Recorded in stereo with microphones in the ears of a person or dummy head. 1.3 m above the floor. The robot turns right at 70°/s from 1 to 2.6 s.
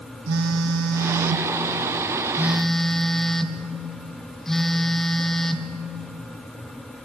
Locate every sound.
0.3 s a phone buzzing: 110° right, 1.4 m; by 5.7 s 5° left, 1.4 m